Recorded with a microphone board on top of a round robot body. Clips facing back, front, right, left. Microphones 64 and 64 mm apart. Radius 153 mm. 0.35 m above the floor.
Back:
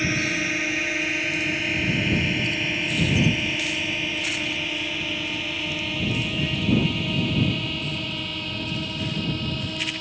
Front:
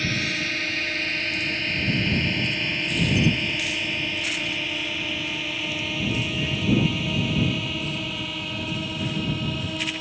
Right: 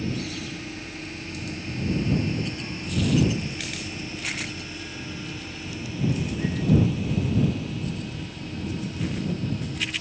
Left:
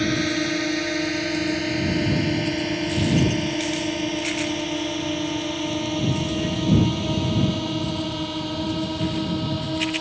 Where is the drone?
105° left; by 10.0 s 85° left.